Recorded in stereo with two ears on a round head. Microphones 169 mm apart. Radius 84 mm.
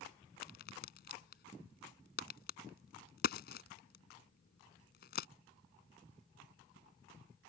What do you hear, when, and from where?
0.4 s a crack: 55° left (ahead or behind)